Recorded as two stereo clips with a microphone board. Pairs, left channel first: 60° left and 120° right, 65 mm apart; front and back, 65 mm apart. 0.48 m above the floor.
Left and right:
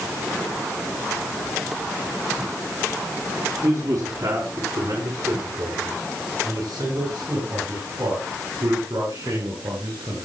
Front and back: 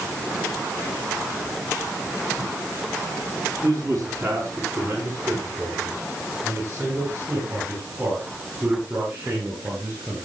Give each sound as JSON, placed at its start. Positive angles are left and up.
{"t": 3.6, "sound": "a man speaking", "azimuth_deg": -145, "distance_m": 4.5}